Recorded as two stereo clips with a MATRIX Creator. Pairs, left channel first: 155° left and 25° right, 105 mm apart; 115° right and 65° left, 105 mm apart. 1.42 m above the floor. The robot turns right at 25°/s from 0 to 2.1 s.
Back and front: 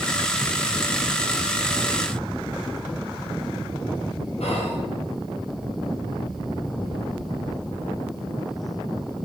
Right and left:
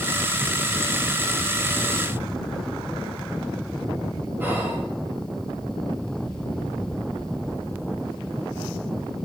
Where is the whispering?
140° left, 0.9 m.